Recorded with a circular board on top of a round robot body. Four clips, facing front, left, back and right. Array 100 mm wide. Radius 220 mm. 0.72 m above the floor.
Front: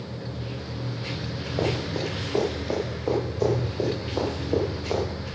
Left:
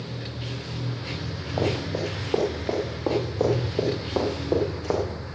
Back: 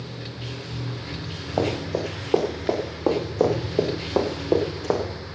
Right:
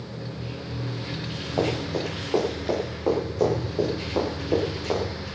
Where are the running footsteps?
175° left, 7 m; by 5.0 s 165° left, 5 m.